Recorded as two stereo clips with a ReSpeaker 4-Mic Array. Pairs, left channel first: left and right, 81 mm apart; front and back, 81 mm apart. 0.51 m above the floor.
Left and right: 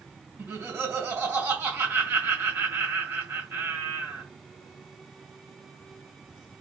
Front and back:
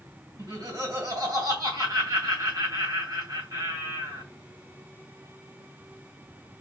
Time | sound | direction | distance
0.4 | laughter | 150° right | 2.5 m